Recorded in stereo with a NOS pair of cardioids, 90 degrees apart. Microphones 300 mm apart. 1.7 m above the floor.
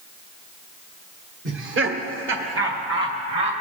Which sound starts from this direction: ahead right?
Laughter, at 1.4 s.